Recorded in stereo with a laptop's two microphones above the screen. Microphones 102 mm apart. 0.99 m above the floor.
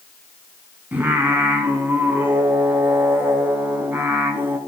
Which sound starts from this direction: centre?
Singing, at 0.9 s.